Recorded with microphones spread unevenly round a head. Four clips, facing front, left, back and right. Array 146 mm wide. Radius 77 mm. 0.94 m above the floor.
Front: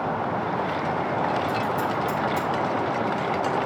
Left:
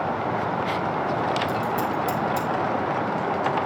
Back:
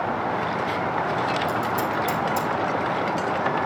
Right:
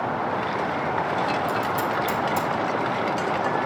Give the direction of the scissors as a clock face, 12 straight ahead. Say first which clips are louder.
Even, back 1 dB; 5 o'clock.